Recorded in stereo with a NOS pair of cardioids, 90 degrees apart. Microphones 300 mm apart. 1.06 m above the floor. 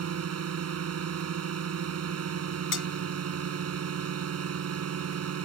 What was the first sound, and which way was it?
A drone, 55° right.